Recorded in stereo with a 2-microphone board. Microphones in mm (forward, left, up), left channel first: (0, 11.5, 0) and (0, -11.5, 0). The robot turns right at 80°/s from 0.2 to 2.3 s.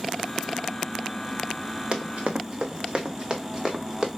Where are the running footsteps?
40° right (ahead or behind), 1.2 m; by 4.1 s 20° right (ahead or behind), 1.7 m.